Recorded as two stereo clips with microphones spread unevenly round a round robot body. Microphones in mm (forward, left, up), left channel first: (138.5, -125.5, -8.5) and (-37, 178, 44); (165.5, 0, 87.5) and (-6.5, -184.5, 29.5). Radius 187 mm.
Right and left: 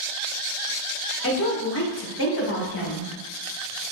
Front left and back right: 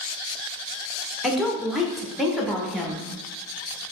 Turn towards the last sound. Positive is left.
turn(degrees=-60)